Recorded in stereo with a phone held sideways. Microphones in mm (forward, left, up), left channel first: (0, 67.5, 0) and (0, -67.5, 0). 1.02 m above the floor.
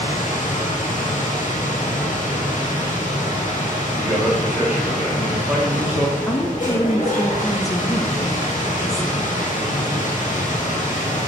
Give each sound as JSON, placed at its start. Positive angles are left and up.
{"t": 0.0, "sound": "a machine running", "side_deg": 75, "distance_m": 1.5}
{"t": 4.0, "sound": "a man speaking", "side_deg": -10, "distance_m": 2.0}
{"t": 6.3, "sound": "a woman speaking", "side_deg": 25, "distance_m": 0.8}